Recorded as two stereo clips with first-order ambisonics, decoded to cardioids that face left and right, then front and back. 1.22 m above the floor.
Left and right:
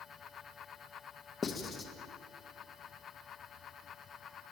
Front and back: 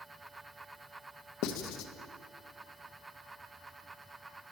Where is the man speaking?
No man speaking in this recording.